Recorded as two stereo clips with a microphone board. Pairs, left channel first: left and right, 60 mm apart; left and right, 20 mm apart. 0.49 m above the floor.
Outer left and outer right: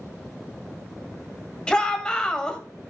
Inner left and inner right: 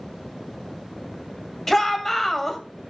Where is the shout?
15° left (ahead or behind), 2.5 m.